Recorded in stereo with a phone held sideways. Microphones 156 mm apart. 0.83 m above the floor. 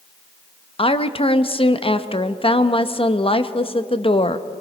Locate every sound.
0.8 s a woman speaking: 35° left (ahead or behind), 0.8 m